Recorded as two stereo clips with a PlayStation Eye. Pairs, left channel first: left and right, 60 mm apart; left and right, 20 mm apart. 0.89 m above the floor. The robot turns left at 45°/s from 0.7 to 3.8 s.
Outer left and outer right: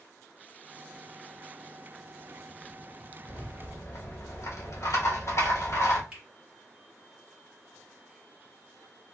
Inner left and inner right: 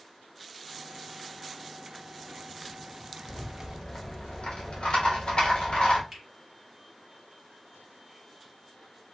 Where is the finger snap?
20° right (ahead or behind), 1.8 m.